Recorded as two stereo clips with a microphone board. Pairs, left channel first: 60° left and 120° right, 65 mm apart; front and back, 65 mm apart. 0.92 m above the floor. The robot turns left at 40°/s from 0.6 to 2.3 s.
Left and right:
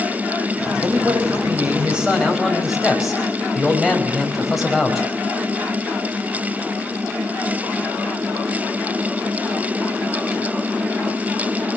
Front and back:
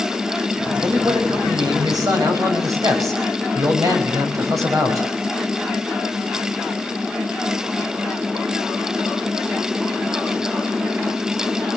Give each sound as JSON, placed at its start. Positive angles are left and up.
{"t": 0.8, "sound": "a man speaking", "azimuth_deg": -150, "distance_m": 5.5}